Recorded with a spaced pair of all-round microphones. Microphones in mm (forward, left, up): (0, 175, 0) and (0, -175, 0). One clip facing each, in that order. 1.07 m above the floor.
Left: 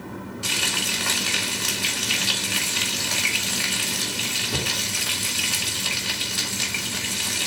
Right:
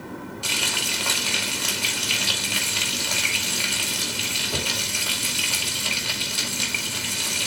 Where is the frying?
25° left (ahead or behind), 2 m.